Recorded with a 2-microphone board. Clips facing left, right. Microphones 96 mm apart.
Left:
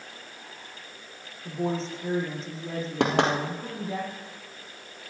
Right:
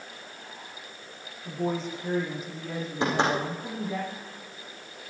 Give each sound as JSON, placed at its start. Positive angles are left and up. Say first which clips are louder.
{"t": 1.4, "sound": "a woman speaking", "louder": "left 1 dB", "side_deg": 30, "distance_m": 8.5}
{"t": 3.0, "sound": "knocking", "louder": "left 2 dB", "side_deg": 70, "distance_m": 3.5}